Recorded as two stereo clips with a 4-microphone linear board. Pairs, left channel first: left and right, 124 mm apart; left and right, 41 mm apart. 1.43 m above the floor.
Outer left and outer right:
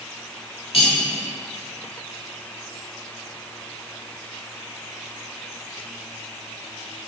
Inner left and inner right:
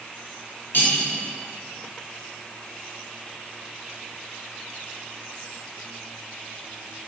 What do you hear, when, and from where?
0.7 s cutlery clinking: 50° left (ahead or behind), 1.8 m